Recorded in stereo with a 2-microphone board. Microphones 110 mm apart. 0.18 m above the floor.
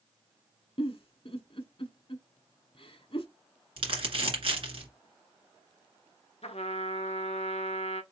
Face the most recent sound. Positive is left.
turn(degrees=70)  # may be behind; listen again after turning